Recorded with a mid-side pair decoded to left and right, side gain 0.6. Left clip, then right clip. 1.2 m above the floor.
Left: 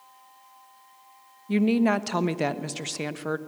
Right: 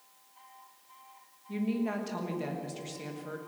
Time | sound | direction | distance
1.5 | a woman speaking | 60° left | 1.2 m